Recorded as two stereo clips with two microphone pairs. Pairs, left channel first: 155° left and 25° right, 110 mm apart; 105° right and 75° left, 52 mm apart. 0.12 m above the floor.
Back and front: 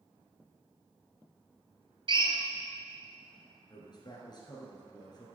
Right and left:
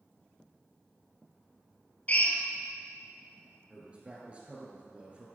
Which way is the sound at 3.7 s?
130° left.